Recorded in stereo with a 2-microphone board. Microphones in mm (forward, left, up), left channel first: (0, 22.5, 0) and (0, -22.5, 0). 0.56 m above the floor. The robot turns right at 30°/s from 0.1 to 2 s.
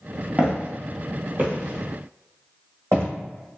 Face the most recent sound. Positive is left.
turn(degrees=-65)  # may be behind; listen again after turning